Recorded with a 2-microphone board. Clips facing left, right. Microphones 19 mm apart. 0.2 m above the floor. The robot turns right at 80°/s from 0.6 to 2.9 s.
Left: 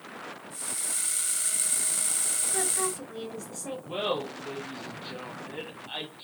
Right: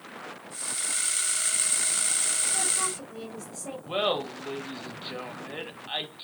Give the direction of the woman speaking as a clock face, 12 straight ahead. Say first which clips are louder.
Right 1 dB; 9 o'clock.